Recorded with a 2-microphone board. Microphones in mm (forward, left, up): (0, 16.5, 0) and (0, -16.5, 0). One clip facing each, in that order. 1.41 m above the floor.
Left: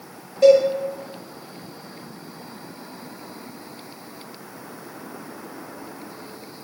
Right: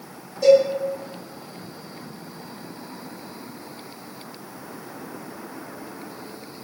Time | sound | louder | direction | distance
0.4 | a cowbell | left 1 dB | 60° left (ahead or behind) | 1.1 m